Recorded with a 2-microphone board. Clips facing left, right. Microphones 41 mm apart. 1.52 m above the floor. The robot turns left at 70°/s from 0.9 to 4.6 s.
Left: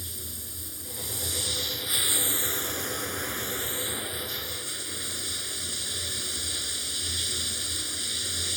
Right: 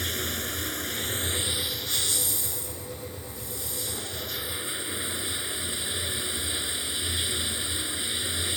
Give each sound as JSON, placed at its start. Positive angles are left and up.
{"t": 0.0, "sound": "running water", "azimuth_deg": -120}